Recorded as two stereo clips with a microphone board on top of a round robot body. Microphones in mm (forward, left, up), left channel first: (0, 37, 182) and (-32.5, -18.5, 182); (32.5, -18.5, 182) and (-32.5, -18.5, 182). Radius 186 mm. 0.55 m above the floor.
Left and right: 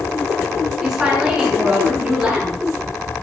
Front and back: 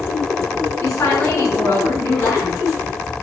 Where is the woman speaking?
40° right, 7 m.